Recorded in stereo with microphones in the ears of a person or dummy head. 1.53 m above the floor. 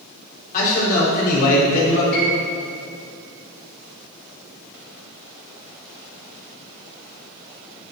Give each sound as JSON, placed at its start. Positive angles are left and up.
{"t": 0.5, "sound": "a man speaking", "side_deg": 45, "distance_m": 3.5}
{"t": 2.1, "sound": "a piano", "side_deg": 55, "distance_m": 3.5}